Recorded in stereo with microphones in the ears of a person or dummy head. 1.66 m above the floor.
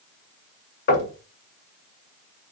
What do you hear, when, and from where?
0.9 s knocking: 60° left (ahead or behind), 1.7 m